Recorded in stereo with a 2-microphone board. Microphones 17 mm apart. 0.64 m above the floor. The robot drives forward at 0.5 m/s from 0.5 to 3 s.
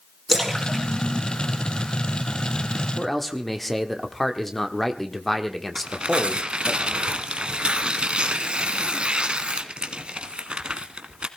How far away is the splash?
About 6 m.